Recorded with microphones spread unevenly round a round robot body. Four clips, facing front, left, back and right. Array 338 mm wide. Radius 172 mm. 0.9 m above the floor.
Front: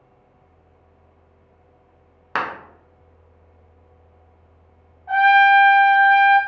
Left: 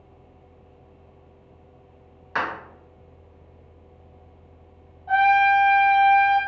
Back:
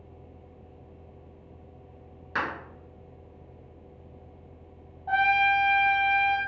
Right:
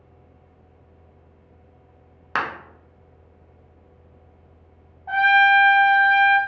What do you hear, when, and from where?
2.4 s a clap: 45° right, 0.8 m
5.1 s a trumpet: 160° right, 1.0 m